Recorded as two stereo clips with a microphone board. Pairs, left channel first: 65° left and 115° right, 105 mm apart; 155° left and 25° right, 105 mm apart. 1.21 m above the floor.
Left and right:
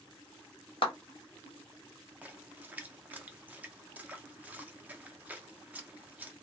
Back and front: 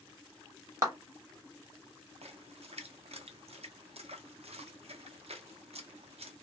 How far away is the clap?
About 1.0 m.